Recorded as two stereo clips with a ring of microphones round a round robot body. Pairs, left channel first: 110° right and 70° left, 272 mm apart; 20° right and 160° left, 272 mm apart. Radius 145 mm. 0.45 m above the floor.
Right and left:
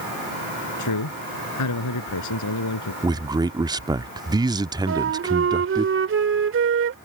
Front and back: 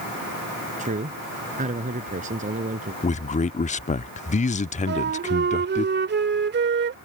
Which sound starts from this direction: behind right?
A man speaking, at 0.8 s.